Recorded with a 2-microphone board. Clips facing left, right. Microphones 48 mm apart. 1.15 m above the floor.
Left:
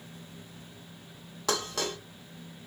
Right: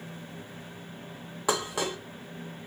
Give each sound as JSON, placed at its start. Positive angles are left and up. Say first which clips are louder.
{"t": 1.5, "sound": "dishes clattering", "louder": "right 2 dB", "side_deg": -15, "distance_m": 0.8}